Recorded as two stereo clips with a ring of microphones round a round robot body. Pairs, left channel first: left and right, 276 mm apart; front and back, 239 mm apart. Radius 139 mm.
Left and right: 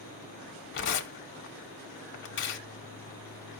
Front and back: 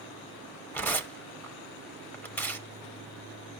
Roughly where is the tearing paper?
Left.